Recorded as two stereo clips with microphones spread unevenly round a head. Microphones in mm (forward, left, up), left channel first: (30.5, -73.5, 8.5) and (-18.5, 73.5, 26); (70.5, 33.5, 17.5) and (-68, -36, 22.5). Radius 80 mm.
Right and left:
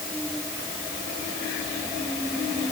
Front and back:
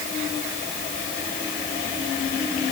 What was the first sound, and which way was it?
Only background noise.